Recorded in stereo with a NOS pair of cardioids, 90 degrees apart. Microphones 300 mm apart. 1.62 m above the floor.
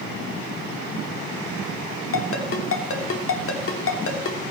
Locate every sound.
2.1 s a ringtone: 45° left, 3 m